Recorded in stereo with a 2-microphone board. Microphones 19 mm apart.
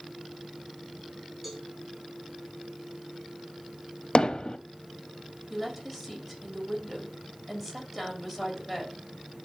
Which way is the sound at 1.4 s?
5° right (ahead or behind).